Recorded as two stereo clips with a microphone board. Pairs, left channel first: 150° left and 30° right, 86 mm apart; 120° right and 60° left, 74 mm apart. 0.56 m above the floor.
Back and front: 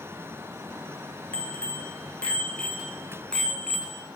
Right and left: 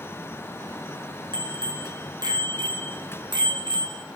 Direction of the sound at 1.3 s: 75° left.